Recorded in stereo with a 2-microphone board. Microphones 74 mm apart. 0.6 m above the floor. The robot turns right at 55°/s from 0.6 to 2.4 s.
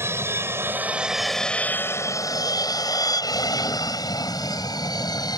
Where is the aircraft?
35° right (ahead or behind); by 5.4 s 65° left (ahead or behind).